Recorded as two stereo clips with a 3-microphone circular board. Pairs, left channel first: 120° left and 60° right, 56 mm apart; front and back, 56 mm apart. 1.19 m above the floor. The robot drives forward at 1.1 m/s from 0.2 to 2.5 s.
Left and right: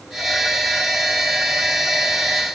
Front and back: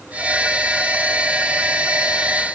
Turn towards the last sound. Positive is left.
No sound to turn to.